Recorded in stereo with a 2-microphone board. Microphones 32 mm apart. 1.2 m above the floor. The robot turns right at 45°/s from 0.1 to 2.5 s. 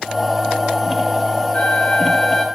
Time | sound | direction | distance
1.5 | a flute | 125° left | 1.6 m